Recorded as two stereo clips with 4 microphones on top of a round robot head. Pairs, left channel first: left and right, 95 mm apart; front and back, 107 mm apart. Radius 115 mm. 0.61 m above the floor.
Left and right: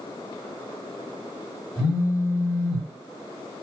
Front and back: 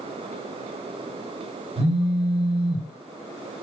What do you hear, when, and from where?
1.8 s a phone buzzing: straight behind, 1.3 m